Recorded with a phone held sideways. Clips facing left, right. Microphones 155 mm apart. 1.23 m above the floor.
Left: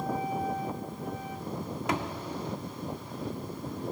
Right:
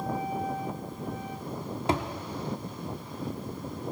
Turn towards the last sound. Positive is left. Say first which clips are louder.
# right 3 dB
turn(degrees=-30)  # may be behind; listen again after turning